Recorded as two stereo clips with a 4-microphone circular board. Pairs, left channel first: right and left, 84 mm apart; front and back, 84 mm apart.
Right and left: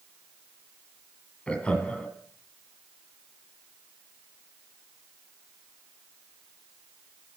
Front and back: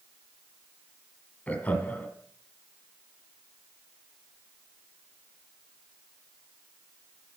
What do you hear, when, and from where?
1.5 s laughter: 40° right, 1.7 m